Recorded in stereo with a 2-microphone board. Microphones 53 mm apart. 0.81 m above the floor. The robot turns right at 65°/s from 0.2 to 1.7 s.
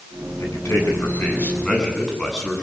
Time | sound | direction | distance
0.4 | a man speaking | 80° left | 9.5 m